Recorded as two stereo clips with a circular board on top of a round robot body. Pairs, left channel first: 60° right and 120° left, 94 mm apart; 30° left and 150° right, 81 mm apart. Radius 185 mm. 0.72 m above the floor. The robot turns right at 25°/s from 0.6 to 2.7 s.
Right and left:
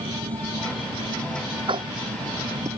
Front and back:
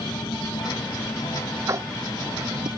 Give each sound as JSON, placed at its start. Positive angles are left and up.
{"t": 0.0, "sound": "an engine running", "azimuth_deg": 95}
{"t": 1.7, "sound": "tapping", "azimuth_deg": 155}